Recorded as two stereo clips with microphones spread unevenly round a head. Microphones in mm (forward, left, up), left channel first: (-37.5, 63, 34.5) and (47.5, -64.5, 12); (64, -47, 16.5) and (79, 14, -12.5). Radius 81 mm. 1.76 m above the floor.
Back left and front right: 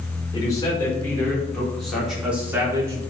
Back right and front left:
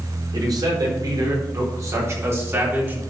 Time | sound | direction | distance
0.3 | a man speaking | 60° left | 6 m